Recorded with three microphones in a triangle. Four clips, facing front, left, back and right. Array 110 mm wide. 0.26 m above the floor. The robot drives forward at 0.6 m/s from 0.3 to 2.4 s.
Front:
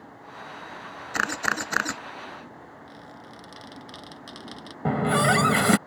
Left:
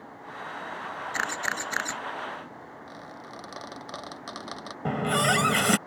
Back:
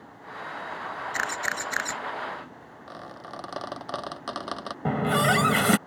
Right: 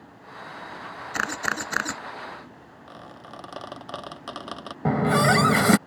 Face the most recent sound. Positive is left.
turn(degrees=-70)